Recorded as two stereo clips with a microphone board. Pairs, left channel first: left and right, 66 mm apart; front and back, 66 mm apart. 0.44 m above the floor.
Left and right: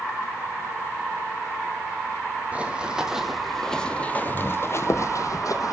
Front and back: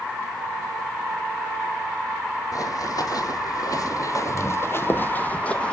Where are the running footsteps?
20° right, 1.4 m; by 5.7 s 75° left, 1.3 m.